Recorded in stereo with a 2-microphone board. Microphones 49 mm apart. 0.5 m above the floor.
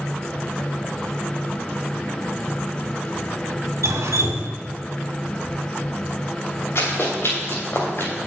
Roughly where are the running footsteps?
Left.